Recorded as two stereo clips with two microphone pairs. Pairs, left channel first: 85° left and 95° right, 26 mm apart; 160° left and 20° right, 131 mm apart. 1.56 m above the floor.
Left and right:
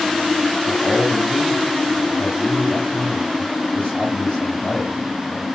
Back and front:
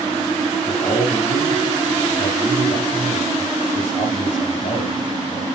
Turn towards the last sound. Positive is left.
turn(degrees=120)